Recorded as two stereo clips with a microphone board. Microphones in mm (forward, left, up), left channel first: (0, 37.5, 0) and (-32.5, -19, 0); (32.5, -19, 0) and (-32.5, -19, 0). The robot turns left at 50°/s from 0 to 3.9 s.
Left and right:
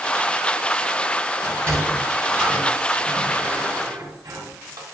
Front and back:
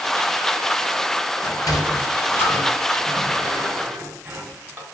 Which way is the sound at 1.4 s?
Straight ahead.